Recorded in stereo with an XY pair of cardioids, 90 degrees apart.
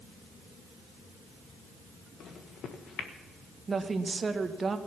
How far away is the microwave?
About 1.6 m.